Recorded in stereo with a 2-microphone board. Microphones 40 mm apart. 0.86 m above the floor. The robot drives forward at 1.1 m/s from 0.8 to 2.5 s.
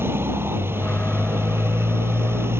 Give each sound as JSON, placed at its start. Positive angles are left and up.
{"t": 0.0, "sound": "a motorcycle", "side_deg": -75}